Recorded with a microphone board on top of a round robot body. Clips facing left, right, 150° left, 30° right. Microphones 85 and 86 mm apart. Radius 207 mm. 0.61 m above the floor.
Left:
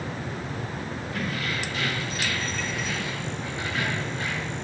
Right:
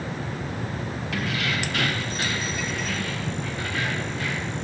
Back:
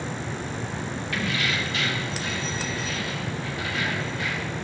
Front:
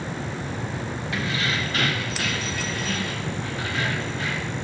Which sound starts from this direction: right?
Keys jangling, at 1.1 s.